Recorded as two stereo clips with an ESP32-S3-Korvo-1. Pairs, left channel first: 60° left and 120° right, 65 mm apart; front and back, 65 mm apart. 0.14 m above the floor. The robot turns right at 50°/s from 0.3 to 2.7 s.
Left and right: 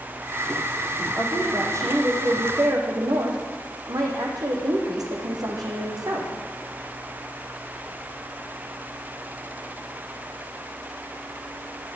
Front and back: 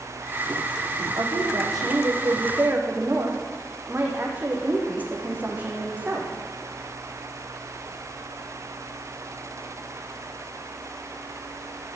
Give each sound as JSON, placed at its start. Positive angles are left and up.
{"t": 1.2, "sound": "a woman speaking", "azimuth_deg": 170, "distance_m": 5.5}